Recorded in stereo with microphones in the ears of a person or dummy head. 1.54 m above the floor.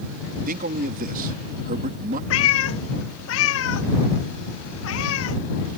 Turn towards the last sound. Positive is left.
turn(degrees=75)  # may be behind; listen again after turning